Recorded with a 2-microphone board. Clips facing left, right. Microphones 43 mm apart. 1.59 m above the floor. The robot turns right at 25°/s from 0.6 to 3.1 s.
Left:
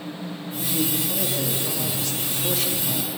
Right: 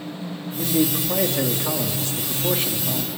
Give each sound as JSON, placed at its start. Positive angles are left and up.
{"t": 0.6, "sound": "a man speaking", "azimuth_deg": -70, "distance_m": 2.5}